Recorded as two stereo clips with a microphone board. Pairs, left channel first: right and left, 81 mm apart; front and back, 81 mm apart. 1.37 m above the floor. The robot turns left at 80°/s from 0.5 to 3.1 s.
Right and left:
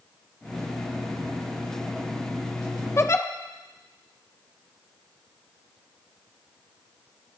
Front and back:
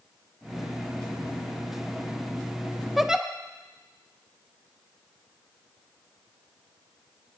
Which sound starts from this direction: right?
A giggle, at 3.0 s.